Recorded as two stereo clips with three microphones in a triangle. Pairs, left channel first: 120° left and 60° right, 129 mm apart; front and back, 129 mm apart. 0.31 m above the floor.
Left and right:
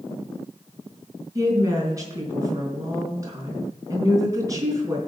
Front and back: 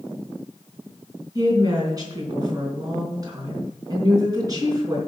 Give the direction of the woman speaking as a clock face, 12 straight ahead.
4 o'clock.